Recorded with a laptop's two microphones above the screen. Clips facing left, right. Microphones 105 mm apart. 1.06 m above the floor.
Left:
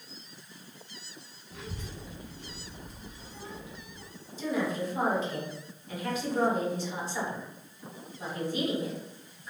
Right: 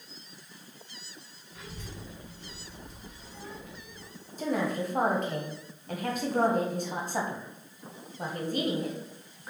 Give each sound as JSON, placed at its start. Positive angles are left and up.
{"t": 1.5, "sound": "a child speaking", "side_deg": 65, "distance_m": 0.6}
{"t": 4.4, "sound": "a woman speaking", "side_deg": -50, "distance_m": 0.8}